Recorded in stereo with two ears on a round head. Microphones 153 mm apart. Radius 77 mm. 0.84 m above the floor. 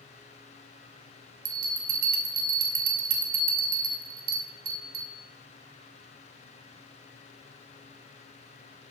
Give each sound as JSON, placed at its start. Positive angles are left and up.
{"t": 1.4, "sound": "a bell", "side_deg": -55, "distance_m": 1.7}